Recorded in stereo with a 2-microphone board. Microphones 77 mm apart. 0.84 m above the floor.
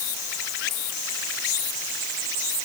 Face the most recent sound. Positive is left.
No sound to turn to.